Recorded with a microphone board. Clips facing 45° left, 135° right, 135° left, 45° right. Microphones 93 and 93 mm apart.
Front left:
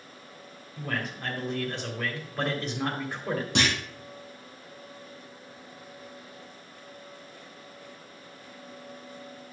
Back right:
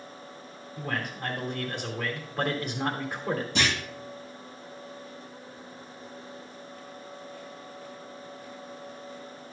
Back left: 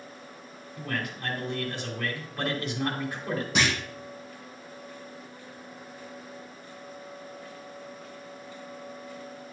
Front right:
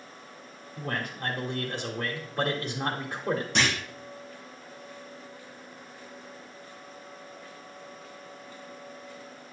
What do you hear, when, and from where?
0.8 s a man speaking: 55° right, 1.5 m
3.5 s a clunk: 50° left, 3 m